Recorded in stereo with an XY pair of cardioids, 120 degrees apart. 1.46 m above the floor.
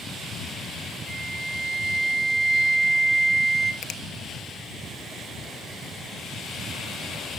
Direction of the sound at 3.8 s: 60° left.